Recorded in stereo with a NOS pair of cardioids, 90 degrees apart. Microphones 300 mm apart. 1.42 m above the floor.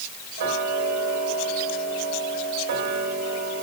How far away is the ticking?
About 4 m.